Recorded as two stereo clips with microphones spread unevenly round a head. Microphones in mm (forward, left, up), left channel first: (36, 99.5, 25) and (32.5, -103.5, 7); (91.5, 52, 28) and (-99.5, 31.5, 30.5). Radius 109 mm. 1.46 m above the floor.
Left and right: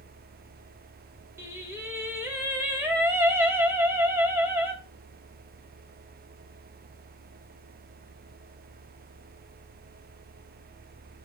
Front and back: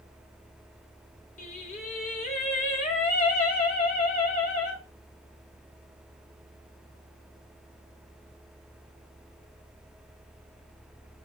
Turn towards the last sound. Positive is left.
turn(degrees=-10)